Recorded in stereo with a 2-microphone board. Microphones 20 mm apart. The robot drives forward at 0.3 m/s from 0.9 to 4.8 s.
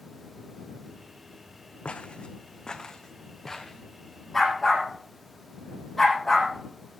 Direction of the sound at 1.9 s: 80° left.